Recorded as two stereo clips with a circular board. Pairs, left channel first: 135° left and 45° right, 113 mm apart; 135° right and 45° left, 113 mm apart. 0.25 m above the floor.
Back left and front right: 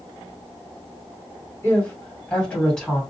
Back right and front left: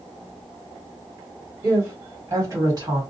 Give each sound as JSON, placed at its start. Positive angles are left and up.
{"t": 1.6, "sound": "a woman speaking", "azimuth_deg": 90, "distance_m": 1.6}